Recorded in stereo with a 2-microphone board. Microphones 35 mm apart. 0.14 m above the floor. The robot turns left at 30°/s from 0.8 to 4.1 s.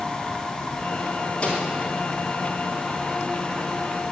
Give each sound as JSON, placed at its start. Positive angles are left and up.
{"t": 1.4, "sound": "a microwave", "side_deg": 30, "distance_m": 2.5}